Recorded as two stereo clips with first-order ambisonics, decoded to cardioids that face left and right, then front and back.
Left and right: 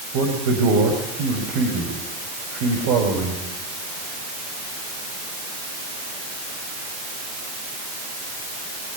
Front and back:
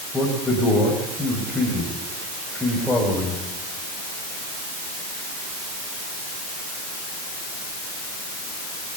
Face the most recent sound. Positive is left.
turn(degrees=-85)